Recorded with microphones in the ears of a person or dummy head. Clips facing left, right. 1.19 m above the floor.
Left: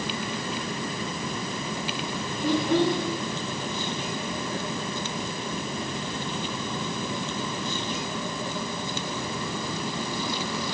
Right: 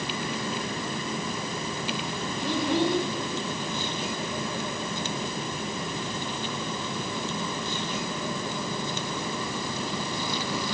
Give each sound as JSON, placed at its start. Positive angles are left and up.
{"t": 2.4, "sound": "a child speaking", "side_deg": 40, "distance_m": 4.0}